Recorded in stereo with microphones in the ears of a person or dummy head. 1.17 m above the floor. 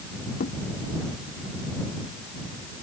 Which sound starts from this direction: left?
A thud, at 0.4 s.